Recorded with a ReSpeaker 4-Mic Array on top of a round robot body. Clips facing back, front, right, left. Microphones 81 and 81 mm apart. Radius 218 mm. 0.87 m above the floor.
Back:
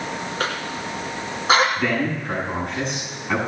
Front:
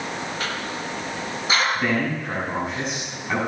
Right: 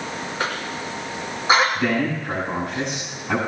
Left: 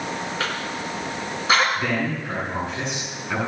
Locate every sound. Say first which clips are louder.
0.4 s a cough: back 2 dB, right 1 dB; 150° right, 1.8 m
1.8 s a man speaking: back 1 dB, right 3 dB; 85° right, 7.5 m